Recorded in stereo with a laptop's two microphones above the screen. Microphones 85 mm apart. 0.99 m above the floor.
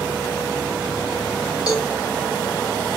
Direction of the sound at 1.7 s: 50° left (ahead or behind).